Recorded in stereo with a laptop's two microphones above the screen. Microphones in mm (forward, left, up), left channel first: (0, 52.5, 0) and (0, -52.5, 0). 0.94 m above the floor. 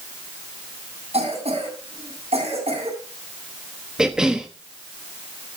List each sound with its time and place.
1.1 s a cough: 75° right (ahead or behind), 7.5 m
4.0 s a cough: 5° right (ahead or behind), 1.0 m